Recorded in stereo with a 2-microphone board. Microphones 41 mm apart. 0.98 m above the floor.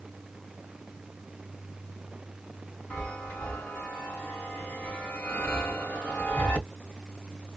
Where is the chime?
35° left (ahead or behind), 1.7 m.